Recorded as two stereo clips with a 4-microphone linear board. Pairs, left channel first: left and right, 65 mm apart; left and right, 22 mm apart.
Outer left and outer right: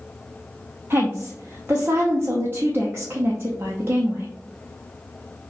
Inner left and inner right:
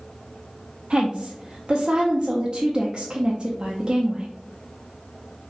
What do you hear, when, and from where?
0.9 s a woman speaking: 40° right (ahead or behind), 0.5 m